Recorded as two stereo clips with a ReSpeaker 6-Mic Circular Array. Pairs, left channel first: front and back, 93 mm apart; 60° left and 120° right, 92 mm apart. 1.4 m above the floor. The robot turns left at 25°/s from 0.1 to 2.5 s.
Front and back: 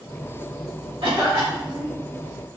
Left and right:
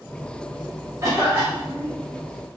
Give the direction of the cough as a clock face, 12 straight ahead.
6 o'clock.